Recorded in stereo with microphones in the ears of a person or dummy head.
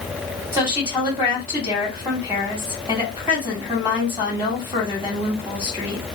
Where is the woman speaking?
20° right (ahead or behind), 1.5 m.